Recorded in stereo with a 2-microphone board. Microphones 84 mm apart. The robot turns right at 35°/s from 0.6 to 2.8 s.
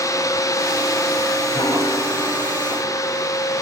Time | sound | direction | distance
1.5 | a piano | 75° left | 1.4 m